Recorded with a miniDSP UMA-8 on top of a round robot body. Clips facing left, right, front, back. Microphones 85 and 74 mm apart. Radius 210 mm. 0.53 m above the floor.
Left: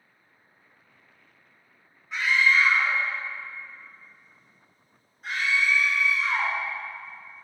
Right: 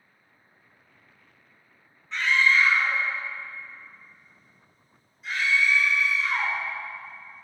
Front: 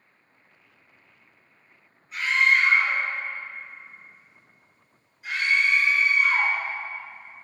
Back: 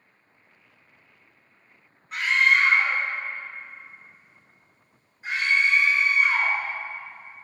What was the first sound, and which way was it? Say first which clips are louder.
A scream: even, back 1 dB; 170° left.